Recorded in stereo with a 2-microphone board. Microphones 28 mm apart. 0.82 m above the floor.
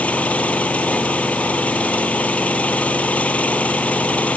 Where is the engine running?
55° left (ahead or behind).